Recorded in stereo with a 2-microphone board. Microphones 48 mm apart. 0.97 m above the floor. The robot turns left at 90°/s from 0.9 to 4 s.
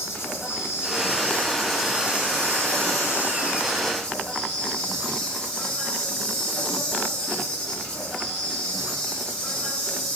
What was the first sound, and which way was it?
An insect, 85° left.